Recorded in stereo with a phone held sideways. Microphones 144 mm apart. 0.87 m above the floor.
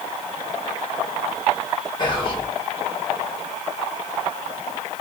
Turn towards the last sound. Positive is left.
turn(degrees=35)  # may be behind; listen again after turning